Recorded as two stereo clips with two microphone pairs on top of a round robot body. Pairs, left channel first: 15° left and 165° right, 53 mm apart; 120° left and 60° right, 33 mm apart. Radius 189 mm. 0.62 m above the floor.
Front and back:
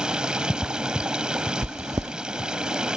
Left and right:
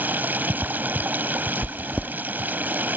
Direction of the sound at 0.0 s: 90° right.